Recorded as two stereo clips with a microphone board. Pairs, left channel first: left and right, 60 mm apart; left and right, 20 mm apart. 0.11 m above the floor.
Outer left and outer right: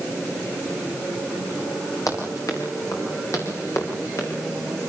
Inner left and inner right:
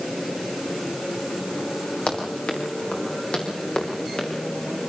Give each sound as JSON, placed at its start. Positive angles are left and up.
{"t": 2.1, "sound": "running footsteps", "side_deg": 65, "distance_m": 7.5}